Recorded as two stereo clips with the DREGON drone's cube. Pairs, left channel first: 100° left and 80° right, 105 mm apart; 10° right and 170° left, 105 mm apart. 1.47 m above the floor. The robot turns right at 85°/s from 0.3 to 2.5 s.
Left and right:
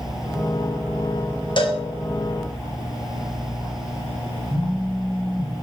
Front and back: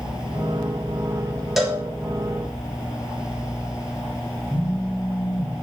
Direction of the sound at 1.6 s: 80° left.